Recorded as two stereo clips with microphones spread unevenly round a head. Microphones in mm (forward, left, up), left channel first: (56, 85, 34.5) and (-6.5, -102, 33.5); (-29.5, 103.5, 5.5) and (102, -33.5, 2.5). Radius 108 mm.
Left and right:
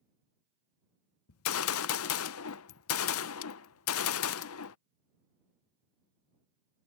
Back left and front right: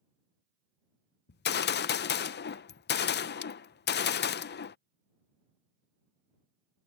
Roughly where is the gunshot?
Left.